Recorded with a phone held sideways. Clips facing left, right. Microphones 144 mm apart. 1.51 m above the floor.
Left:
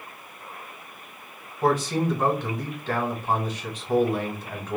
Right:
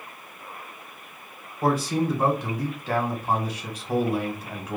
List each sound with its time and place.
1.6 s a man speaking: 10° right (ahead or behind), 1.6 m